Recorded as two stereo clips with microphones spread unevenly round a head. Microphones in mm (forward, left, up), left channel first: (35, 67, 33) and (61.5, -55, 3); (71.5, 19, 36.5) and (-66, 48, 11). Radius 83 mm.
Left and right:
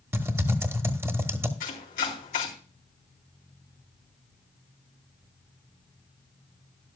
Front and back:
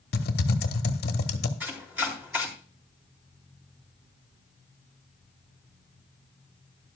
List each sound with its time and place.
0.1 s typing on a keyboard: 5° right, 1.1 m
1.6 s chopping: 90° left, 3.5 m